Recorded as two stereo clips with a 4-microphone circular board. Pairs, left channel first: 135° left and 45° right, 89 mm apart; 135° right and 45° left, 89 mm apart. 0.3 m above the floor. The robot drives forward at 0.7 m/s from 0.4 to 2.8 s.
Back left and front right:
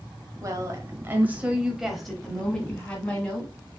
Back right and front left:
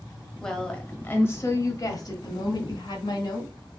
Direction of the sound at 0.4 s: 55° right.